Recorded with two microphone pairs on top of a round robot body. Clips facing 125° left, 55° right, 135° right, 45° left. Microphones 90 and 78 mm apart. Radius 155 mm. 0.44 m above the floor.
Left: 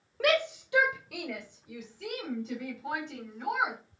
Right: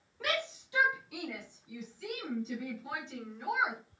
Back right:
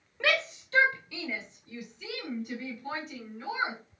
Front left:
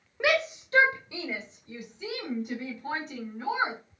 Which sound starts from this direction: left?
A shout, at 0.2 s.